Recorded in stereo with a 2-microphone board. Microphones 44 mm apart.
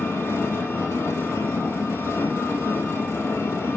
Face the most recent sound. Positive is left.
turn(degrees=80)